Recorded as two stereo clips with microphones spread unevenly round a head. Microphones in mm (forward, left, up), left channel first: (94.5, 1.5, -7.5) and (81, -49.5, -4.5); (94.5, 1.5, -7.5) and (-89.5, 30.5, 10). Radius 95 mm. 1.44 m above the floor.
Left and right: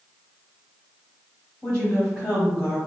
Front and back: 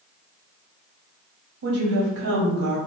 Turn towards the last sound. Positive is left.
turn(degrees=155)